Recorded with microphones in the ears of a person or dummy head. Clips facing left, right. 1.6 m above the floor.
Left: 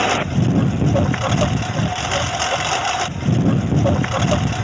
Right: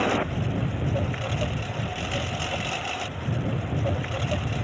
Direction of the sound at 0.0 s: 85° left.